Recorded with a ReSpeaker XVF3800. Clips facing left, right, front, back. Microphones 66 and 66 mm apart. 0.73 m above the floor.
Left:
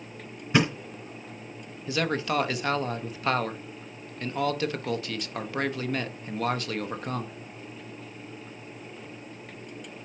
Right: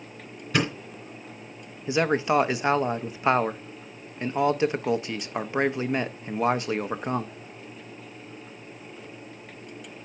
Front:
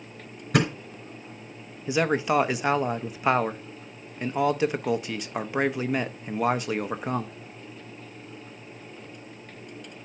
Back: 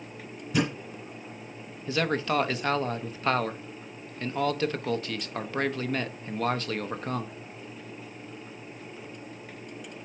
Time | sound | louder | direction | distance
0.5 | a thud | left 2 dB, front 3 dB | 20° left | 3 m
1.9 | a man speaking | right 5 dB, front 4 dB | 55° right | 0.6 m